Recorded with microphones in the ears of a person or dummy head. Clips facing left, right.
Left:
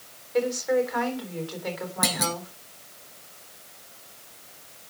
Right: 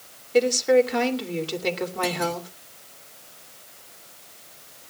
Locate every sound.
0.3 s a woman speaking: 40° right (ahead or behind), 3.5 m
2.0 s a clunk: 55° left (ahead or behind), 1.6 m